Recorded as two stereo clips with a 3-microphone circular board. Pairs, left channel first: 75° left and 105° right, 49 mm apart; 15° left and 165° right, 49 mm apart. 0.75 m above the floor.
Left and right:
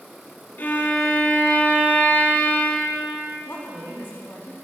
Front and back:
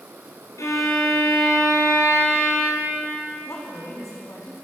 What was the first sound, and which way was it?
A violin, 25° left.